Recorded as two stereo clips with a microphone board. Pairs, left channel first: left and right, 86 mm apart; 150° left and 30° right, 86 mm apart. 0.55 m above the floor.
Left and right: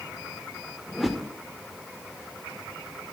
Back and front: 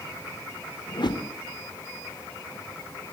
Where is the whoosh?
Straight behind, 0.6 m.